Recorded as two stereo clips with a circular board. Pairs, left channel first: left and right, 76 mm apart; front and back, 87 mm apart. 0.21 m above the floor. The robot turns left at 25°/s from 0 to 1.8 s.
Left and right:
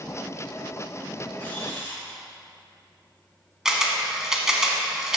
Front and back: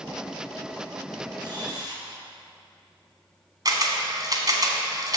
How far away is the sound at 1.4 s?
About 2 m.